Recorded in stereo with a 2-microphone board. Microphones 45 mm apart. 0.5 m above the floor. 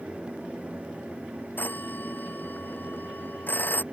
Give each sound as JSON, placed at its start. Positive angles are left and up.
{"t": 1.6, "sound": "a phone ringing", "side_deg": 45}